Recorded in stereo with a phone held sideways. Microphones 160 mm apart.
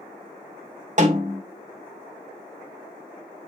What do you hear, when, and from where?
1.0 s a snare drum: 50° right (ahead or behind), 2 m